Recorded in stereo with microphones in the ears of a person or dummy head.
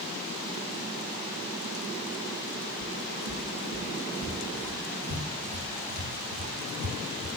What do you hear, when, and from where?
2.8 s footsteps: 70° right (ahead or behind), 5 m; by 7.3 s 50° right (ahead or behind), 4.5 m